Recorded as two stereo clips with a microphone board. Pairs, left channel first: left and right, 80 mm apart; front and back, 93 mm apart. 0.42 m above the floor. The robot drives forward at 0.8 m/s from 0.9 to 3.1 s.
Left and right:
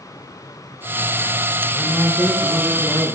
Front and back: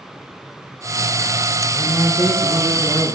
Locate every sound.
1.7 s a man speaking: 10° left, 8 m